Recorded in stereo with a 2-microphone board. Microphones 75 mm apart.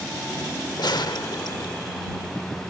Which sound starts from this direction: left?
A gunshot, at 0.8 s.